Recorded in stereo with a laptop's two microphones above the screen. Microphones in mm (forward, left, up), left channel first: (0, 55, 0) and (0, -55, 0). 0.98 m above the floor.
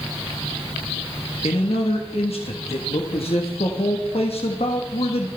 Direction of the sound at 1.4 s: 65° left (ahead or behind).